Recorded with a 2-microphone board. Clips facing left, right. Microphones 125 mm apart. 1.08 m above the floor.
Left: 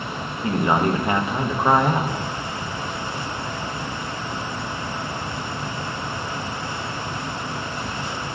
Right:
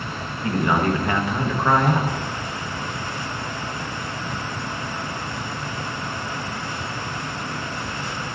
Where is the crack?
No crack in this recording.